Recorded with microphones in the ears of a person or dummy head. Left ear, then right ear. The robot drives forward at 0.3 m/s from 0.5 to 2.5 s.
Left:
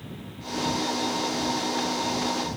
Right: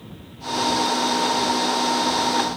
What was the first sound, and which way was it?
Only background noise.